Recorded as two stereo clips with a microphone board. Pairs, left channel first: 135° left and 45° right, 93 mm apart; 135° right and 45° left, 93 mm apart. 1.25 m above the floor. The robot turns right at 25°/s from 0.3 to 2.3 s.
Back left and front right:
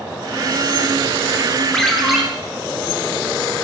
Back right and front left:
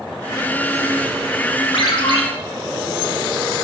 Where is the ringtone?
140° right, 1.1 m; by 2.2 s 130° right, 1.1 m.